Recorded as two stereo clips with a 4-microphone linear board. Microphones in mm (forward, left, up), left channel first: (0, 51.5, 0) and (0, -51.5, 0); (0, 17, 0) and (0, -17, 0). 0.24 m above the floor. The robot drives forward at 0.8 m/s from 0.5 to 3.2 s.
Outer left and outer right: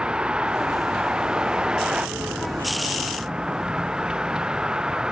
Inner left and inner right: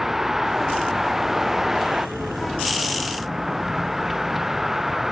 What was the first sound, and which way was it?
A vehicle, 10° right (ahead or behind).